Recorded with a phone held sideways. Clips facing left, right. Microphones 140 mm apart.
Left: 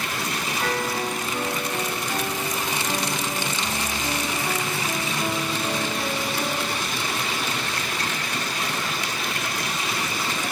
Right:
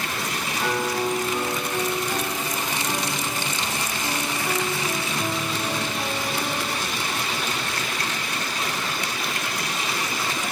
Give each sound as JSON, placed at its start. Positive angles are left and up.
{"t": 0.6, "sound": "a piano", "side_deg": -20, "distance_m": 1.8}